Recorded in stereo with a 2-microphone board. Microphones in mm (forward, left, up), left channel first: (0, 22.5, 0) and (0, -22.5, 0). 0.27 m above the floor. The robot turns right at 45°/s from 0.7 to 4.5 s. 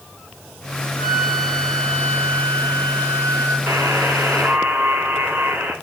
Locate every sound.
1.0 s a flute: 10° right, 1.5 m; by 3.6 s 105° left, 1.5 m
3.7 s a buzzer: 80° right, 4 m; by 5.7 s 40° right, 4 m